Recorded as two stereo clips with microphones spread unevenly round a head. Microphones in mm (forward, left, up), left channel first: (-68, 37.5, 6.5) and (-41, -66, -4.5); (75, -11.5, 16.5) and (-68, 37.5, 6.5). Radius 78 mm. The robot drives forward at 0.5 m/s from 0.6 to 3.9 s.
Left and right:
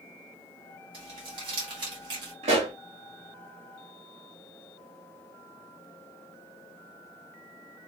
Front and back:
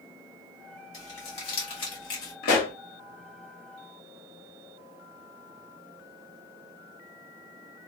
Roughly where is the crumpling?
Ahead right.